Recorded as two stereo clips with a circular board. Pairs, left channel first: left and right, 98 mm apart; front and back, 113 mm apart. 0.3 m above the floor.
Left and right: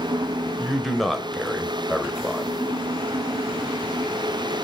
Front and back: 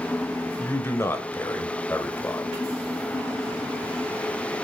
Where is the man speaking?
Straight ahead, 1.3 m.